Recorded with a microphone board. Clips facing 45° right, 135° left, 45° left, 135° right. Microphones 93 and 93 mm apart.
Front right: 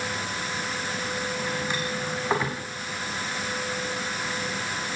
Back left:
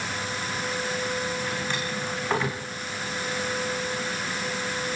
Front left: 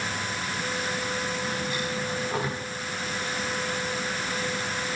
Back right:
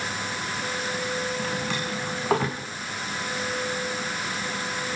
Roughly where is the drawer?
Behind right.